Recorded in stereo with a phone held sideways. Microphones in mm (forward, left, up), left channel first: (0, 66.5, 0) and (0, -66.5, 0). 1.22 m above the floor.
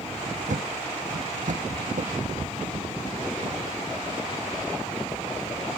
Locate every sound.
0.5 s a thud: 75° right (ahead or behind)